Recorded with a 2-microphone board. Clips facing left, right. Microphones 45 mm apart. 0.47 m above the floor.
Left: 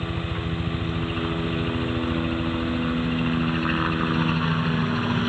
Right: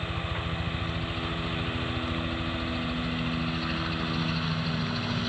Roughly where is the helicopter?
Left.